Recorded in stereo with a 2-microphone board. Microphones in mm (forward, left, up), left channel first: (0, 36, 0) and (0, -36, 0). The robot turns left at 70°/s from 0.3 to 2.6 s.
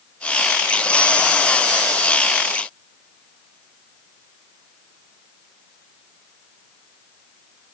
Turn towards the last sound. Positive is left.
No sound to turn to.